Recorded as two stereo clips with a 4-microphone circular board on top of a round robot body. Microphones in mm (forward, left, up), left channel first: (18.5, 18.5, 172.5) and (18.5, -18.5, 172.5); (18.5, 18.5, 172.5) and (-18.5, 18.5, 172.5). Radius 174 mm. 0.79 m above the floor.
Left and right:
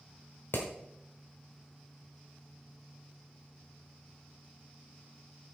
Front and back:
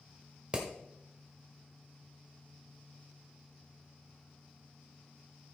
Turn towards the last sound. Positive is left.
turn(degrees=115)